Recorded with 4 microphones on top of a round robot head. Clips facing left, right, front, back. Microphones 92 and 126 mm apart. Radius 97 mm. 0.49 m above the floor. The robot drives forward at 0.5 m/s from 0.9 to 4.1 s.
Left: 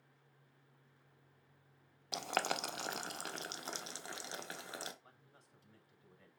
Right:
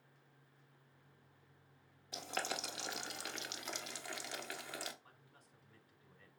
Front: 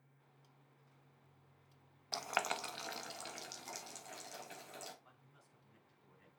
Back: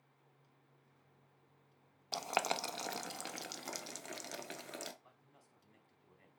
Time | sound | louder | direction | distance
2.1 | boiling | left 5 dB, back 3 dB | 105° left | 0.7 m
5.0 | a man speaking | even, back 1 dB | 155° left | 5 m